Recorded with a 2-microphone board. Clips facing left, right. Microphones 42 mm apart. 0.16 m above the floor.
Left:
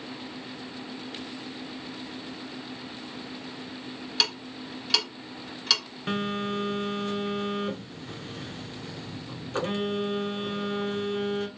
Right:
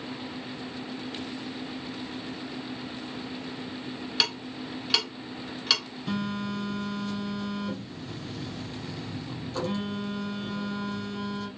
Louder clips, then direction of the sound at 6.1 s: Left 2 dB; 45° left (ahead or behind).